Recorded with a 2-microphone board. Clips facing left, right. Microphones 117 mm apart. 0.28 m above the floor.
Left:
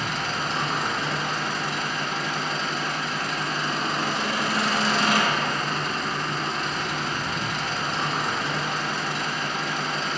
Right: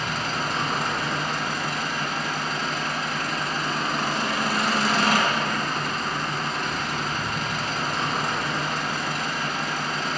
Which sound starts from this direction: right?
An engine running, at 0.0 s.